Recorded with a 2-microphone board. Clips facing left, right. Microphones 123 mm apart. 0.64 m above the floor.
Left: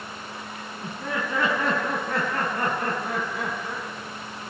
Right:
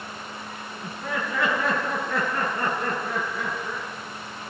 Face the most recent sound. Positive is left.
turn(degrees=70)  # may be behind; listen again after turning